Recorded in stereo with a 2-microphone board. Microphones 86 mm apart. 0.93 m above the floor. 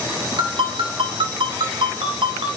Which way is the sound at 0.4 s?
75° right (ahead or behind).